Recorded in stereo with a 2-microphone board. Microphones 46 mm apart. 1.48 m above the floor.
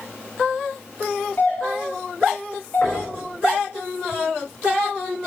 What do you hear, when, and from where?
1.4 s a doorbell: 45° left (ahead or behind), 4.5 m
2.8 s knocking: 50° left (ahead or behind), 5.5 m